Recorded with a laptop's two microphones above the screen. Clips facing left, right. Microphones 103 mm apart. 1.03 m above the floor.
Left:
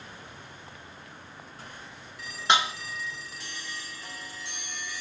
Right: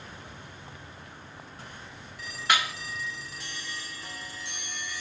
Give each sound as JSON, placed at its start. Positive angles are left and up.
{"t": 2.5, "sound": "dishes clattering", "side_deg": 25, "distance_m": 0.6}